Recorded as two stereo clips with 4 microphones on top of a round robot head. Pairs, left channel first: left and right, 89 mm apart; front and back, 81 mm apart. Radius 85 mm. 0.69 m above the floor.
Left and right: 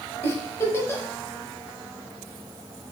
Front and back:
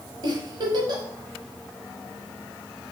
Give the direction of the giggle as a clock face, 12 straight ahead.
7 o'clock.